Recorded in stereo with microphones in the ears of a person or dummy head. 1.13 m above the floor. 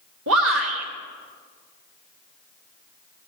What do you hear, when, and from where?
0.3 s a shout: 75° right (ahead or behind), 1.6 m